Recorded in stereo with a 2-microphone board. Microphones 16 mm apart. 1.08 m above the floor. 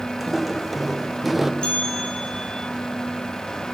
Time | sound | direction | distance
0.2 | footsteps | 10° right (ahead or behind) | 2.5 m
1.6 | a bell | 75° left (ahead or behind) | 8 m